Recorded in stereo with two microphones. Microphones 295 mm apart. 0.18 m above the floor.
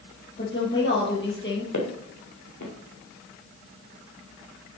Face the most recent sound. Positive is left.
turn(degrees=75)  # may be behind; listen again after turning